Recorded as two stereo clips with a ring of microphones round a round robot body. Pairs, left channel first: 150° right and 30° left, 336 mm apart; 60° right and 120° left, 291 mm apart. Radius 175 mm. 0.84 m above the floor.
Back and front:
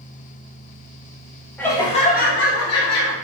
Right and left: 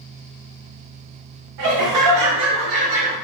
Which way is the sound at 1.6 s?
125° left.